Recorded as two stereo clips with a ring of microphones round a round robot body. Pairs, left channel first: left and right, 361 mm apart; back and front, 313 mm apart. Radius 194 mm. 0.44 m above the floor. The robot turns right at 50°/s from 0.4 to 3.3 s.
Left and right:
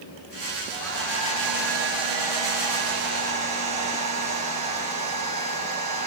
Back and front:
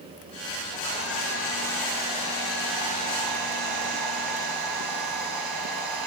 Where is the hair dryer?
145° right, 9.5 m; by 6.1 s 15° right, 9.5 m.